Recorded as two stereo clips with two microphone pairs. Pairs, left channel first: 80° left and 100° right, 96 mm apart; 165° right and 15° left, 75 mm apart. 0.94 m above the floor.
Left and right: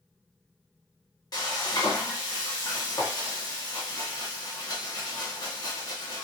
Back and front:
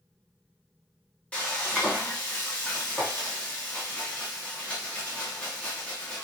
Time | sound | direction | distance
1.3 | frying | 125° left | 1.0 m